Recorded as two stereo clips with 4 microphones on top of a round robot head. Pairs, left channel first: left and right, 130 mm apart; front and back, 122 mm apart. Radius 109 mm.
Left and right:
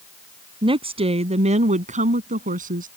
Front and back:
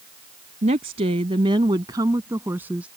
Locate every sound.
0.6 s a woman speaking: 140° right; by 2.9 s 100° right